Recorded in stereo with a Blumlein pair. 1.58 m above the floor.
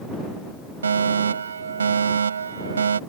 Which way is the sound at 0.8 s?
70° right.